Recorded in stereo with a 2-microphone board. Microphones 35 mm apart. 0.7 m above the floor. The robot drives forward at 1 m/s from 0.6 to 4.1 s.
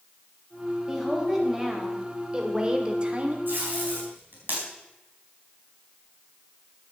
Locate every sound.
0.9 s a woman speaking: 15° right (ahead or behind), 4 m; by 3.4 s 40° right (ahead or behind), 1.6 m
3.5 s tape being pulled: 60° right (ahead or behind), 4 m; by 4.6 s 55° right (ahead or behind), 4.5 m